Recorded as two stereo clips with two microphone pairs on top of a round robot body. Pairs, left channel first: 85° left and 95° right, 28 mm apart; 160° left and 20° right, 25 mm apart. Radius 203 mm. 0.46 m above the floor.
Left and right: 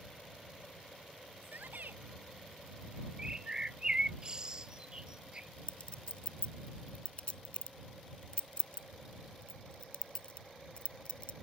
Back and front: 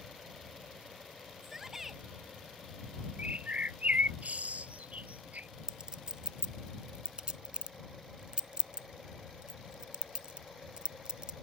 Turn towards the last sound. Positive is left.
turn(degrees=35)